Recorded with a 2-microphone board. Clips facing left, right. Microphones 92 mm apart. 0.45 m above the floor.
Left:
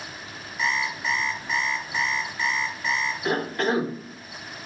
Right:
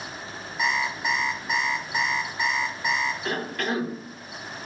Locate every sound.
0.6 s an alarm clock: 20° right (ahead or behind), 1.5 m
3.2 s a cough: 25° left (ahead or behind), 0.8 m